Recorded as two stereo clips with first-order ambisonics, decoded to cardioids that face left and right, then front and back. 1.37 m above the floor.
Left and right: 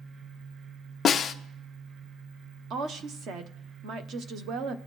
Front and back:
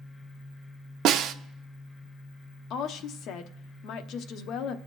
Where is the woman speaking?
40° right, 0.8 m.